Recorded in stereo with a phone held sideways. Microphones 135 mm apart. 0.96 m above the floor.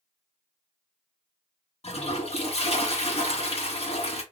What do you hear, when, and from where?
1.8 s a toilet flushing: 50° left (ahead or behind), 1.4 m